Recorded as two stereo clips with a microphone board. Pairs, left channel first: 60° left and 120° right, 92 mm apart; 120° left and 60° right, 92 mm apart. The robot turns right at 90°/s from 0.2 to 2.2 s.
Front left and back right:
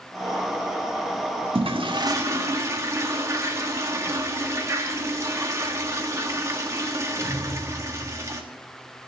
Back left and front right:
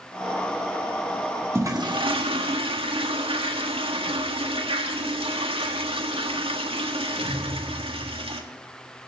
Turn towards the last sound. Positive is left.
turn(degrees=-65)